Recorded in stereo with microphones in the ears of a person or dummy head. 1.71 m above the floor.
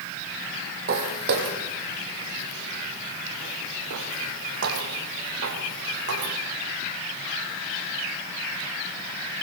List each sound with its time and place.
0.9 s footsteps: 45° right (ahead or behind), 3 m; by 6.3 s 75° right (ahead or behind), 7.5 m